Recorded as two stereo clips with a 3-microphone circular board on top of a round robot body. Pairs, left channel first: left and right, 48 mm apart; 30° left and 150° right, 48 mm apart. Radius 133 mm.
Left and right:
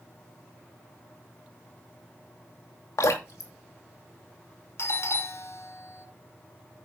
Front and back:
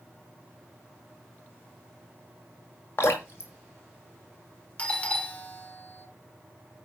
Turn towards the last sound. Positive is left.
turn(degrees=90)